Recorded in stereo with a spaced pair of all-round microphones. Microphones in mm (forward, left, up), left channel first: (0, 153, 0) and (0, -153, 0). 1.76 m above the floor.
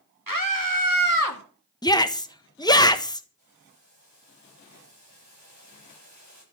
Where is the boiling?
60° right (ahead or behind), 8.5 m.